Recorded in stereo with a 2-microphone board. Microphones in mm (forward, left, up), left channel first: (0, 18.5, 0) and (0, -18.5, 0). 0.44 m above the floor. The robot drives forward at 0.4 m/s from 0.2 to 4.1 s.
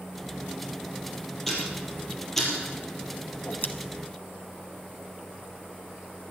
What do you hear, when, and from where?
1.5 s ticking: 10° left (ahead or behind), 4.5 m
3.3 s a whoosh: 50° left (ahead or behind), 0.8 m; by 3.7 s 55° left (ahead or behind), 0.7 m